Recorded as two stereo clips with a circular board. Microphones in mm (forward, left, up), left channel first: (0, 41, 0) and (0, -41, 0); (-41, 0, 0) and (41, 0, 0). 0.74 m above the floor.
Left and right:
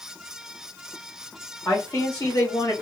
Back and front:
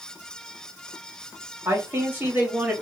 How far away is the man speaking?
About 1.5 m.